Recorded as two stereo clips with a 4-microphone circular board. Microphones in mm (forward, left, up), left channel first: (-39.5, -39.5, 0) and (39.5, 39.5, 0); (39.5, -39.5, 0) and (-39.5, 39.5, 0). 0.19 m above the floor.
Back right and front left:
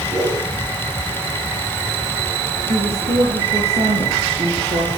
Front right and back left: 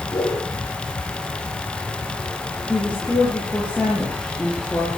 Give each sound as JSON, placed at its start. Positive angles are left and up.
{"t": 0.1, "sound": "a whoosh", "azimuth_deg": 5, "distance_m": 7.0}
{"t": 2.7, "sound": "a woman speaking", "azimuth_deg": 35, "distance_m": 5.0}